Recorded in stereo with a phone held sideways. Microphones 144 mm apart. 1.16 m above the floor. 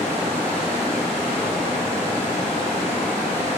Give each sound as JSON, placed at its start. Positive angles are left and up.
{"t": 0.0, "sound": "running water", "side_deg": 45, "distance_m": 1.7}